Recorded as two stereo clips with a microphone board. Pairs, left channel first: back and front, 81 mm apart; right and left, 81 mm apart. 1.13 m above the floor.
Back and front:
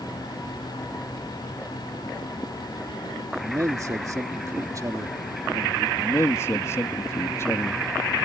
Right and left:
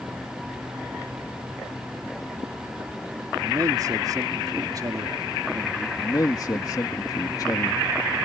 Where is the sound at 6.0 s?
125° right.